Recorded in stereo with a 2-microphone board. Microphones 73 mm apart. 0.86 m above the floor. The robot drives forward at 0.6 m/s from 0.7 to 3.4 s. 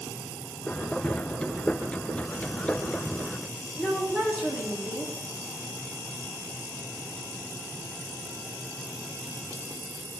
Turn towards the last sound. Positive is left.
turn(degrees=-10)  # may be behind; listen again after turning